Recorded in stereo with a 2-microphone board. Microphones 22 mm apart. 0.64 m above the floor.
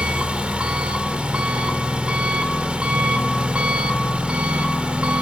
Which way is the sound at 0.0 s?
60° right (ahead or behind).